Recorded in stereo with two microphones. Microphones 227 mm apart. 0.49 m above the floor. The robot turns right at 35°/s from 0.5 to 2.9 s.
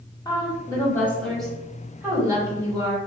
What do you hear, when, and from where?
0.2 s a woman speaking: 15° left (ahead or behind), 1.2 m; by 3.0 s 20° right (ahead or behind), 1.2 m